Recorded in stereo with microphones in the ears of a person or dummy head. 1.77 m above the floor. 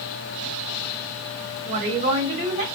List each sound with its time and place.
1.6 s a woman speaking: 40° right (ahead or behind), 1.3 m